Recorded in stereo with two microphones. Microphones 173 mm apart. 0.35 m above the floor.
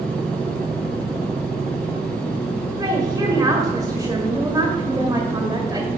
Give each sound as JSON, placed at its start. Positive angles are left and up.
{"t": 2.8, "sound": "a woman speaking", "side_deg": -20, "distance_m": 1.6}